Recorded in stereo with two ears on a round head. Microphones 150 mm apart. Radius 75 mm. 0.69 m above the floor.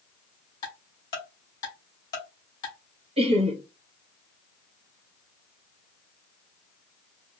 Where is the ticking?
25° left (ahead or behind), 2 m.